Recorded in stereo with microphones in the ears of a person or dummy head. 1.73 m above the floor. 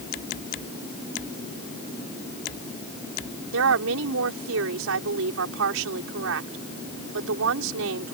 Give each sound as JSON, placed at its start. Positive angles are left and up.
{"t": 3.5, "sound": "a woman speaking", "side_deg": -75}